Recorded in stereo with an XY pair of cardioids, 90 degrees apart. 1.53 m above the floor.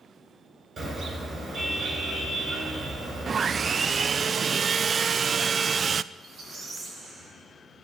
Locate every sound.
0.8 s a car horn: 45° right, 8.5 m
3.3 s sawing: 45° right, 0.5 m
6.1 s a squeak: 55° right, 7.5 m